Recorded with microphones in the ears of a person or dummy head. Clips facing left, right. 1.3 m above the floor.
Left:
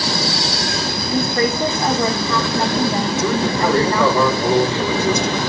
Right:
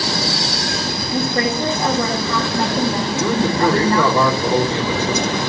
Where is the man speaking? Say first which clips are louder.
Right 3 dB; 70° right (ahead or behind), 3.5 m.